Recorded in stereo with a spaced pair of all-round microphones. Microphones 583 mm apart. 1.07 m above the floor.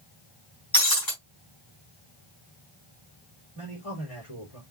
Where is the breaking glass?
35° left (ahead or behind), 3.5 m.